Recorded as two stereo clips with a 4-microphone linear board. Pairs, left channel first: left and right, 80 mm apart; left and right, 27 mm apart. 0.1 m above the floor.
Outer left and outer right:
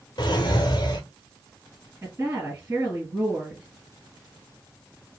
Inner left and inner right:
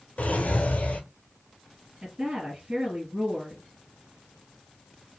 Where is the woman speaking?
30° right (ahead or behind), 2 m.